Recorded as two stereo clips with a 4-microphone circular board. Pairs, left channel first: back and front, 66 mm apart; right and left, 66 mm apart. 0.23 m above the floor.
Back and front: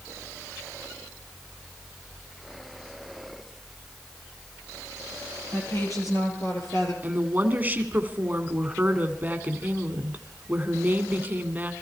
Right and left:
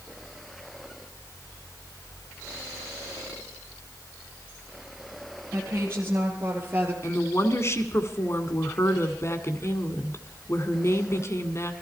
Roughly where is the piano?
No piano in this recording.